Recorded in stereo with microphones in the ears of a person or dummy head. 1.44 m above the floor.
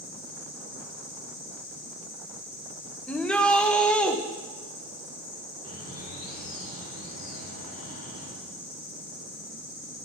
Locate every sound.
0.0 s an insect: 75° left (ahead or behind), 4.5 m
3.1 s a shout: centre (ahead or behind), 1.0 m
5.6 s a bird: 55° left (ahead or behind), 3.5 m